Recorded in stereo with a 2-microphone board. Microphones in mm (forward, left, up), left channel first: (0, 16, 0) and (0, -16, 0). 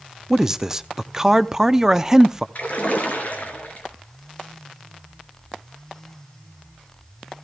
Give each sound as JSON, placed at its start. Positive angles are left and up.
{"t": 0.3, "sound": "a man speaking", "side_deg": -20, "distance_m": 0.6}
{"t": 2.5, "sound": "a splash", "side_deg": 50, "distance_m": 3.0}